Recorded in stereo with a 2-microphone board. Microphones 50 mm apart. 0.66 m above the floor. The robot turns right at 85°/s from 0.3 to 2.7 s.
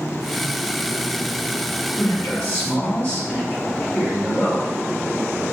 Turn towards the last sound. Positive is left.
turn(degrees=120)